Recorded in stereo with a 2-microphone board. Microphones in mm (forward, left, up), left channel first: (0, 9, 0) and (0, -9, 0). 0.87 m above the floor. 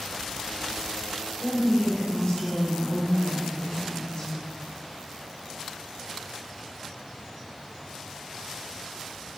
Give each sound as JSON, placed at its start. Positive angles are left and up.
{"t": 1.4, "sound": "a woman speaking", "side_deg": 30, "distance_m": 2.5}